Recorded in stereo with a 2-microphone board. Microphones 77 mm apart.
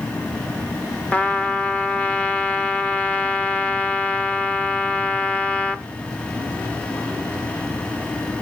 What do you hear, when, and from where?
1.1 s a trumpet: 15° left (ahead or behind), 0.7 m